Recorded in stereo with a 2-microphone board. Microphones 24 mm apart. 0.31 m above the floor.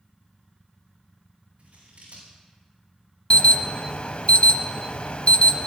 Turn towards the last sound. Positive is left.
turn(degrees=55)  # may be behind; listen again after turning